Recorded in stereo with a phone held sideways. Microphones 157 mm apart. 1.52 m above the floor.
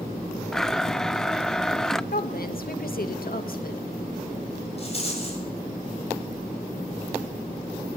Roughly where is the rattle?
Left.